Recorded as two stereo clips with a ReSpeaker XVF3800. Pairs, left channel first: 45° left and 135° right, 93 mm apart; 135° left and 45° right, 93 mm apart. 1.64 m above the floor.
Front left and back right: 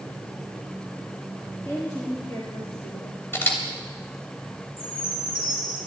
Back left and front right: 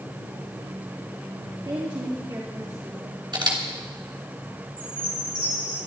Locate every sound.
1.6 s a woman speaking: 10° right, 3.5 m; by 3.2 s 10° left, 2.5 m
3.3 s a camera shutter: 20° right, 3 m
4.8 s a chime: 10° right, 6 m